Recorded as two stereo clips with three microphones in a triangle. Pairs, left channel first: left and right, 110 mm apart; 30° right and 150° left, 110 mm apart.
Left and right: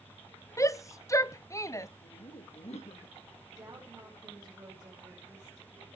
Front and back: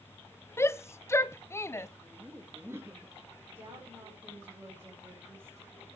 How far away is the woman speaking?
About 5 m.